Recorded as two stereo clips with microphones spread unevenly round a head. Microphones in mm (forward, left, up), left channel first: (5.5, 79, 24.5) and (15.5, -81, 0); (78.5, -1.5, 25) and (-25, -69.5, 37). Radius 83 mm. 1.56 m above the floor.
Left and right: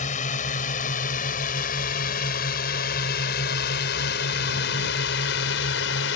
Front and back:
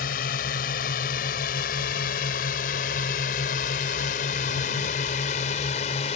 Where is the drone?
50° left; by 6.2 s 85° left.